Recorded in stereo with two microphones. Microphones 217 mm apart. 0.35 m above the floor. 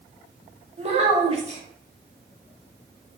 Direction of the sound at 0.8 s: 30° right (ahead or behind).